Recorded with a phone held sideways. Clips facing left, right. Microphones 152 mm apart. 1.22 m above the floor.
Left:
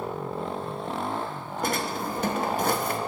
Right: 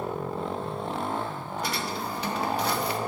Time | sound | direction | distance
1.6 | a drawer | 50° left (ahead or behind) | 0.7 m